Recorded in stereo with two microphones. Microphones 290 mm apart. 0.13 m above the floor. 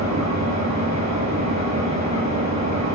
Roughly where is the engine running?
Right.